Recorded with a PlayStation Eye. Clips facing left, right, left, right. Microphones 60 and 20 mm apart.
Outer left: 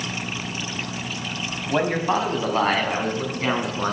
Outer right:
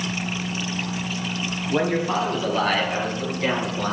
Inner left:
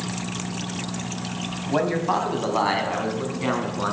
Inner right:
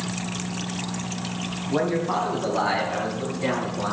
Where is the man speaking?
30° left (ahead or behind), 1.7 m.